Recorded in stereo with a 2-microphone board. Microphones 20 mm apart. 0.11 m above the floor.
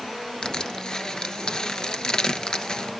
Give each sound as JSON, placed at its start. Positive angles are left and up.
{"t": 0.4, "sound": "crushing", "side_deg": 40, "distance_m": 0.7}